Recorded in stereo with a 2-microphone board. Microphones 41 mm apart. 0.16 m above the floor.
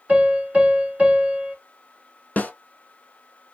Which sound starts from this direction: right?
A piano, at 0.1 s.